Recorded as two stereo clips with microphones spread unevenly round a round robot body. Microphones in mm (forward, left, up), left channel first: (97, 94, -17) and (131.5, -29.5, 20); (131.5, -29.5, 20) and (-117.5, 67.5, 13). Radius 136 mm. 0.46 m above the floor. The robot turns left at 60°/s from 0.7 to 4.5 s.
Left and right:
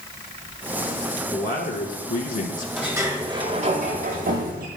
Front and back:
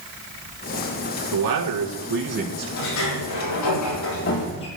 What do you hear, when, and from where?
1.3 s a man speaking: 170° left, 4.5 m; by 2.7 s 85° left, 4.5 m
2.8 s a sliding door: 15° left, 7 m; by 4.7 s 90° right, 7 m